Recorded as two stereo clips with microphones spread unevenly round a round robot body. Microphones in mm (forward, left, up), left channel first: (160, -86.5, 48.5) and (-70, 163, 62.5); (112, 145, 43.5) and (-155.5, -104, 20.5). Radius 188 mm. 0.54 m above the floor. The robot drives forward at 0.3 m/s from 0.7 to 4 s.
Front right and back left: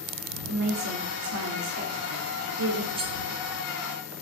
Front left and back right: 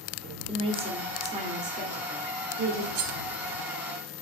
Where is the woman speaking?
155° left, 1.4 m; by 2.9 s 165° left, 1.9 m.